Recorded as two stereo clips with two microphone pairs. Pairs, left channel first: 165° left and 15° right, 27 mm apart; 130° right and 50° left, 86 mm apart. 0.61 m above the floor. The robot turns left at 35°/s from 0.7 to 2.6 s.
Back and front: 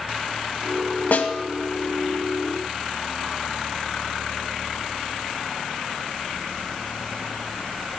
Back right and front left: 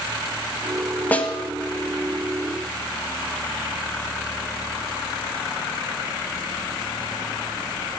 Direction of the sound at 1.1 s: 160° left.